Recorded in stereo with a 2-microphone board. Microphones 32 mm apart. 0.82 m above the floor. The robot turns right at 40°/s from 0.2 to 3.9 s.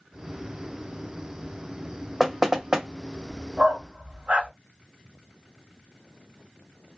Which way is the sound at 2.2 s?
Centre (ahead or behind).